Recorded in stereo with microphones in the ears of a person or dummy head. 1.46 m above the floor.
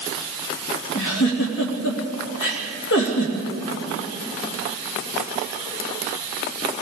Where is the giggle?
65° left (ahead or behind), 2.5 m.